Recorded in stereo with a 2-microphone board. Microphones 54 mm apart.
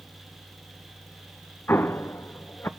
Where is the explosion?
40° left (ahead or behind), 0.6 m.